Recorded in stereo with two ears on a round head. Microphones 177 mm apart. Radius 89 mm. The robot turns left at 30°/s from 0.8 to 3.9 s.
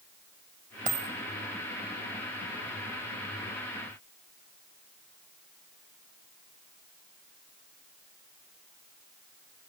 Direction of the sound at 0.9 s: 40° right (ahead or behind).